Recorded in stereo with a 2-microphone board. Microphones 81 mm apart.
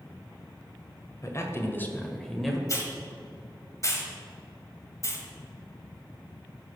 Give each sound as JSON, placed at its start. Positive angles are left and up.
{"t": 1.2, "sound": "a man speaking", "side_deg": 40, "distance_m": 1.5}
{"t": 2.7, "sound": "a hiss", "side_deg": 40, "distance_m": 1.6}